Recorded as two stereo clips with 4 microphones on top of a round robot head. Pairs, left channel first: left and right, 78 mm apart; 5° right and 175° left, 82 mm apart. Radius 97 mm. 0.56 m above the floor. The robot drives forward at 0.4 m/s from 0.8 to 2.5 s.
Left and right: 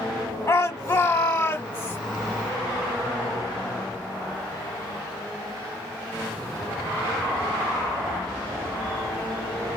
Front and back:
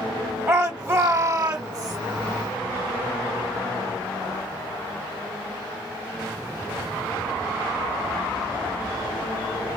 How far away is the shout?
About 1.4 m.